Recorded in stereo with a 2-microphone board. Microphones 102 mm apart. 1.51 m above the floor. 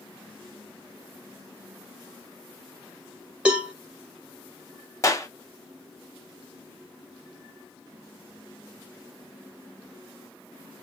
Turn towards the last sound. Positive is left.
turn(degrees=30)  # may be behind; listen again after turning